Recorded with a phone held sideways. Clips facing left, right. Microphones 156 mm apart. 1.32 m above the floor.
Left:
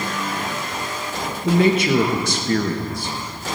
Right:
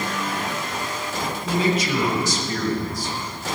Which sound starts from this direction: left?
A man speaking, at 1.4 s.